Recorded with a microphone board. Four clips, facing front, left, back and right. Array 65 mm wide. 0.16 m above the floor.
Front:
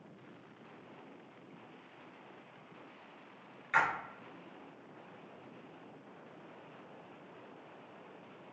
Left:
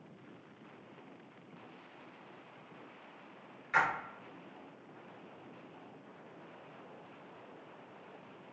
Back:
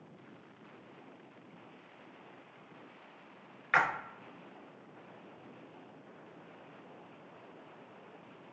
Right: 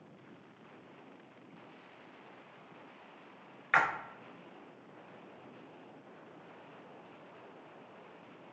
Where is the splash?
130° right, 0.7 m.